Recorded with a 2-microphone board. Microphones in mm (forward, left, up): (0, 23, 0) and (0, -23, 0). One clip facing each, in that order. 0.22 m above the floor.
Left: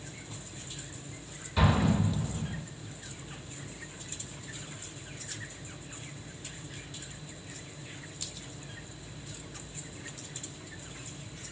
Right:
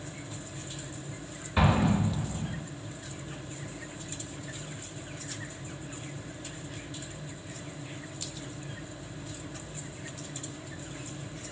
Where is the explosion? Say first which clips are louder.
Right 1 dB; 30° right (ahead or behind), 1.2 m.